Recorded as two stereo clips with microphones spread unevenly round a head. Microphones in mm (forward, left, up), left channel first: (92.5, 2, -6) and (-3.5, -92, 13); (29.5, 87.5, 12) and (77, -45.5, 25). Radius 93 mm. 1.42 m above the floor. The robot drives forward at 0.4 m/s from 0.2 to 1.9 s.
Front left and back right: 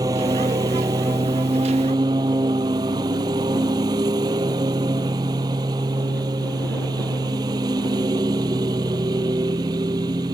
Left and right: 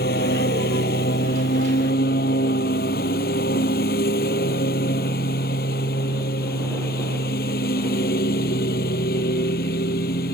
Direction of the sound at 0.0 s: 155° left.